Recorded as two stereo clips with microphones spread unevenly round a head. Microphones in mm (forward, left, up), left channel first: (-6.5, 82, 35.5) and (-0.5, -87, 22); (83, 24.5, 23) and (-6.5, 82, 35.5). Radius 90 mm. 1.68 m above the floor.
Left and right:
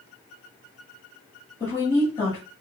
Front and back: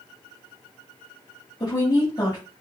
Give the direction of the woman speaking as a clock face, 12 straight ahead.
11 o'clock.